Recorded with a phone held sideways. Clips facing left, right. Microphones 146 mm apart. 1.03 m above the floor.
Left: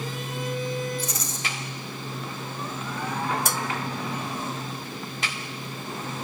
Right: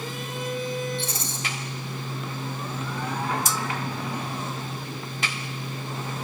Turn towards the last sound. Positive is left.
turn(degrees=60)  # may be behind; listen again after turning